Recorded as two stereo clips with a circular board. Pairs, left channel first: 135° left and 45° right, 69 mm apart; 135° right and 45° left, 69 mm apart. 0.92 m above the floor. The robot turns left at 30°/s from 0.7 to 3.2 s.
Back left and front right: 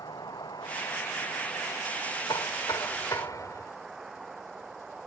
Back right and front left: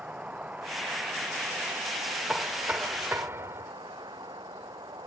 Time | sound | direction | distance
0.0 | a vehicle | 115° left | ?
2.3 | knocking | 125° left | ?